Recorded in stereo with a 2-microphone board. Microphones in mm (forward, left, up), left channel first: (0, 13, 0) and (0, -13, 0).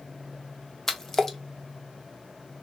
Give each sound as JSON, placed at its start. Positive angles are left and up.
{"t": 0.9, "sound": "a splash", "side_deg": 20, "distance_m": 0.6}